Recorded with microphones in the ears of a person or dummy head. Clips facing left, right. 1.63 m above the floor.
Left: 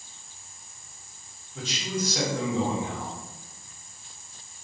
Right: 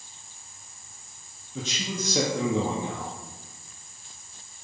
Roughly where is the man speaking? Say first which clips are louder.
Left 1 dB; right.